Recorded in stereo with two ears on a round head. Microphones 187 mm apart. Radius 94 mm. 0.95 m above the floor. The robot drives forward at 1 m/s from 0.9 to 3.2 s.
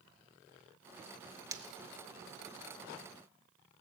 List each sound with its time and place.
1.5 s breaking glass: 15° right (ahead or behind), 1.1 m; by 1.6 s 20° right (ahead or behind), 1.0 m